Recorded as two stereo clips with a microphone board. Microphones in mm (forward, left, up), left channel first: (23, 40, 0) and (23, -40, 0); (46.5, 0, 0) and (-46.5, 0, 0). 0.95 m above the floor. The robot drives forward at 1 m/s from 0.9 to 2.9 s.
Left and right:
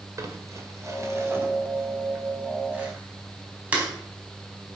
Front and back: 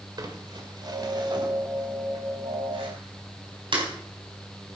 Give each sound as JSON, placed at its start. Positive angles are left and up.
{"t": 0.2, "sound": "crumpling", "azimuth_deg": -140, "distance_m": 1.8}